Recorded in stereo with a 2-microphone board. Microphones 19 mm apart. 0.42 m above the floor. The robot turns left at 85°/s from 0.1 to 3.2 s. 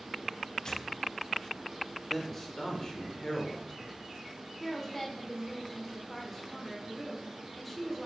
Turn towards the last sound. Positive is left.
turn(degrees=15)  # may be behind; listen again after turning